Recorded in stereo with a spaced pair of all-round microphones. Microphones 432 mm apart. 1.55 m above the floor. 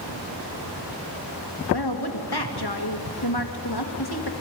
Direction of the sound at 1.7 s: 60° left (ahead or behind).